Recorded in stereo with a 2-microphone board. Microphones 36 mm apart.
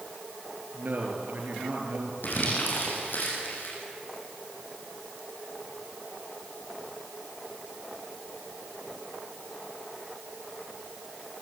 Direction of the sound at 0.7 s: 60° right (ahead or behind).